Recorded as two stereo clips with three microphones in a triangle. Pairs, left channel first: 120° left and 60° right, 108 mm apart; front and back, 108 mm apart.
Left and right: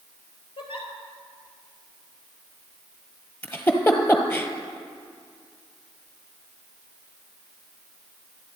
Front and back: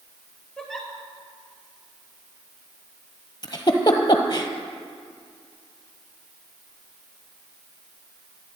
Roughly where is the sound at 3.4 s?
Ahead left.